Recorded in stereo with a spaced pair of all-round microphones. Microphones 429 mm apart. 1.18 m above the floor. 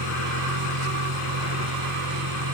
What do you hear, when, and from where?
0.0 s a vehicle: 70° right (ahead or behind); by 2.5 s 65° right (ahead or behind)